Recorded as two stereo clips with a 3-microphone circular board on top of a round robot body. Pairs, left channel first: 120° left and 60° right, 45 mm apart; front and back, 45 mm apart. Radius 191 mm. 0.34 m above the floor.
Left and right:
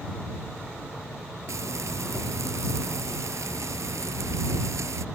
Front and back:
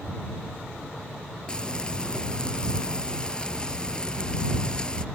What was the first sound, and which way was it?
Frying, 75° right.